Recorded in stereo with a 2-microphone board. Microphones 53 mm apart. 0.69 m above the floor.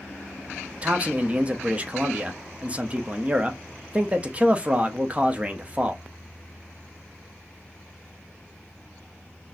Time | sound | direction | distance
0.8 | a man speaking | 25° right (ahead or behind) | 0.6 m